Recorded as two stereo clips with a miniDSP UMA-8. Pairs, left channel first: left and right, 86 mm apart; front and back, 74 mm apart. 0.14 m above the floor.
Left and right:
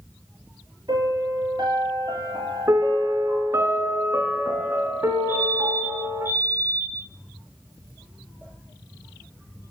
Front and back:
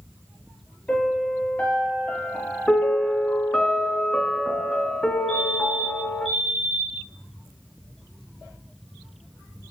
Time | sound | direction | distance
0.9 | a piano | 70° right | 2.5 m
2.7 | a piano | 75° right | 1.4 m
5.3 | a fire alarm | 90° left | 2.5 m